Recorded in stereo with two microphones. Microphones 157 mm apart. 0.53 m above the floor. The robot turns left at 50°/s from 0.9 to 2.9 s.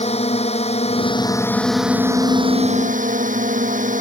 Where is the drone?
45° left; by 4.0 s 55° right.